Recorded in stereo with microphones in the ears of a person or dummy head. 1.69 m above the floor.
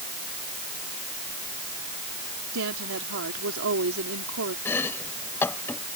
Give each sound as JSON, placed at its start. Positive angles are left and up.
{"t": 2.5, "sound": "a woman speaking", "side_deg": -75}
{"t": 4.7, "sound": "chopping", "side_deg": 15}